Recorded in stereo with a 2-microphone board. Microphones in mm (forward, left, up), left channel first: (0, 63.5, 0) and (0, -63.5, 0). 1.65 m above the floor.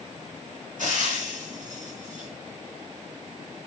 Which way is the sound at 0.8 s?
85° right.